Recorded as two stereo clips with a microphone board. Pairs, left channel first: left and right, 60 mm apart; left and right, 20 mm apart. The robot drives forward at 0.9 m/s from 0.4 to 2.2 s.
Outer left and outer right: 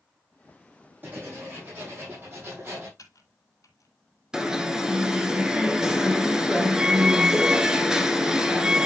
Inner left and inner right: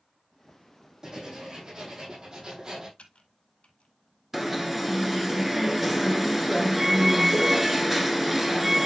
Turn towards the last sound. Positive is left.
turn(degrees=-10)  # may be behind; listen again after turning